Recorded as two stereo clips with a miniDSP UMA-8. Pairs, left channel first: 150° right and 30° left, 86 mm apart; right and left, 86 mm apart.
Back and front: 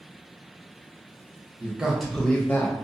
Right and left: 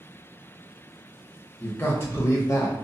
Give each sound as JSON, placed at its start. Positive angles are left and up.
{"t": 1.6, "sound": "a man speaking", "azimuth_deg": -30, "distance_m": 0.8}